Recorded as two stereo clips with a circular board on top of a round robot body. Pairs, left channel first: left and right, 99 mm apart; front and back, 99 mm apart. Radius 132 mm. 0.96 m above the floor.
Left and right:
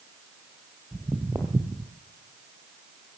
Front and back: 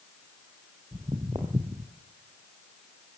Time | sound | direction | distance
0.9 | footsteps | 160° right | 1.0 m